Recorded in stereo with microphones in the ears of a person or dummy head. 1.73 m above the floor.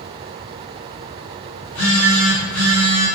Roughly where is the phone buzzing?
Left.